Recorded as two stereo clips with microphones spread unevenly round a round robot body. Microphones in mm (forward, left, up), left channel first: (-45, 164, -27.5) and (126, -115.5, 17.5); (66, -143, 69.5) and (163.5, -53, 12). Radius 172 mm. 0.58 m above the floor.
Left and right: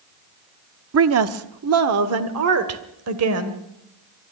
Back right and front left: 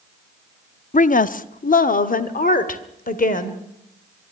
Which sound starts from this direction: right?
A woman speaking, at 0.9 s.